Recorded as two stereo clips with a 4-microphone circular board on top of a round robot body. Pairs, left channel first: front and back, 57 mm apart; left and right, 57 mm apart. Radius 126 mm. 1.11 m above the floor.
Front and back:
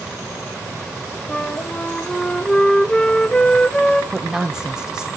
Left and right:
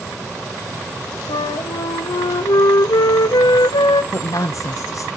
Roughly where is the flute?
Left.